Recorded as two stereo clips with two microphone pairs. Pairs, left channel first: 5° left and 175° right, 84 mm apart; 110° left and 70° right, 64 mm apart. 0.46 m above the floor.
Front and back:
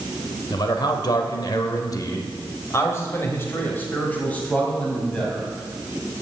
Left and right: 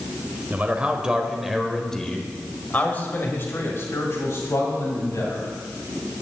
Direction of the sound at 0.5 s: 10° right.